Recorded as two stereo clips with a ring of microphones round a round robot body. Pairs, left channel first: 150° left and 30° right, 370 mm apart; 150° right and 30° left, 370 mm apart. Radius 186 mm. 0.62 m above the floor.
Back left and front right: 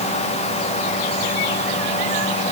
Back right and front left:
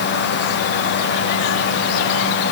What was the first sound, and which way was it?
Only background noise.